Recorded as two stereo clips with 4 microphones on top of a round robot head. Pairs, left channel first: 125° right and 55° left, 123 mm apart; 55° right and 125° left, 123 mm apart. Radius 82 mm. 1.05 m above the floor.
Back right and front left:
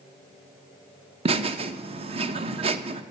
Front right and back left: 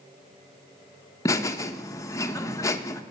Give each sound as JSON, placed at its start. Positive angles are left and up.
{"t": 1.2, "sound": "laughter", "azimuth_deg": 10, "distance_m": 0.8}